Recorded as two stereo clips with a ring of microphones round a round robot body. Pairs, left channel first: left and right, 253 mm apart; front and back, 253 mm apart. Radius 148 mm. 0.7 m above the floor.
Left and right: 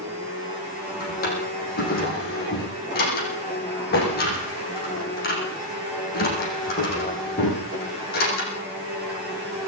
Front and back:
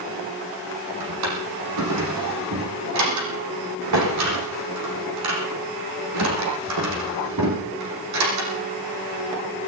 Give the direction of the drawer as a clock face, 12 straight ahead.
7 o'clock.